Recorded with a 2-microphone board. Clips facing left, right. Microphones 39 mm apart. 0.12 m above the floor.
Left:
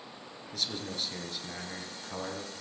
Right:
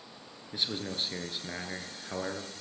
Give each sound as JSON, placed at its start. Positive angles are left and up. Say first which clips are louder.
{"t": 0.5, "sound": "a man speaking", "louder": "right 2 dB", "side_deg": -25, "distance_m": 1.5}